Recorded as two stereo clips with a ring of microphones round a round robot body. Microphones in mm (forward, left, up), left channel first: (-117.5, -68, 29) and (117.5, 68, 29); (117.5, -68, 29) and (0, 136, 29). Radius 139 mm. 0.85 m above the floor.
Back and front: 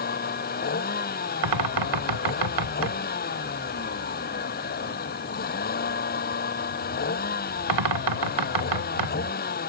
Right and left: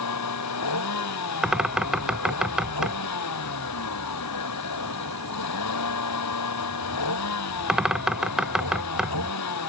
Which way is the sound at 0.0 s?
90° right.